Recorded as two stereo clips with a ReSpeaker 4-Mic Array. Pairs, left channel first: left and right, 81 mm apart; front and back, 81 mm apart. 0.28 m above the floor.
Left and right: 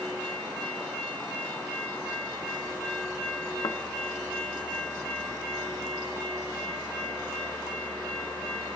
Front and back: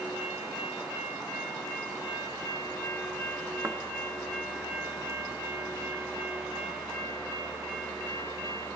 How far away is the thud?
About 0.5 m.